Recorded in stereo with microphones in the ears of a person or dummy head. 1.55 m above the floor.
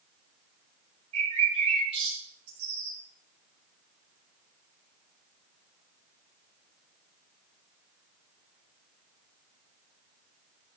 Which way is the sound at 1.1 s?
30° right (ahead or behind).